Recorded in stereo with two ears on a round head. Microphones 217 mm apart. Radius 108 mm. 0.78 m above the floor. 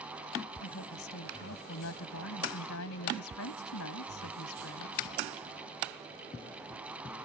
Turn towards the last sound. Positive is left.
turn(degrees=65)  # may be behind; listen again after turning